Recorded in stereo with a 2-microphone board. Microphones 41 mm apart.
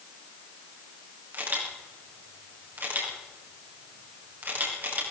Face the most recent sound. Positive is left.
turn(degrees=-55)  # may be behind; listen again after turning